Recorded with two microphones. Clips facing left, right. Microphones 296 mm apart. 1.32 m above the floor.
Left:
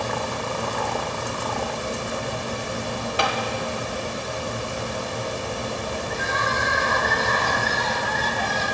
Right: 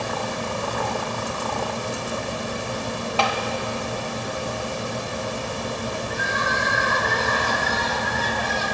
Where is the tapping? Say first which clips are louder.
Right 1 dB; 20° left (ahead or behind), 0.9 m.